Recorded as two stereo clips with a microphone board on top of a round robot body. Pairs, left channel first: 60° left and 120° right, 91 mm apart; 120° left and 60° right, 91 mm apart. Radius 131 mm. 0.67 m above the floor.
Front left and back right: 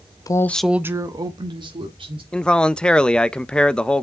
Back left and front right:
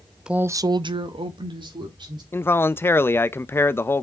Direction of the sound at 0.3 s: 20° left.